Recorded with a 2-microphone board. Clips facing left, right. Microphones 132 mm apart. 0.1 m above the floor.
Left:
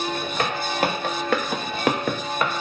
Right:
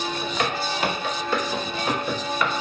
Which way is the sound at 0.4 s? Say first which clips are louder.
Left 1 dB; 40° left (ahead or behind).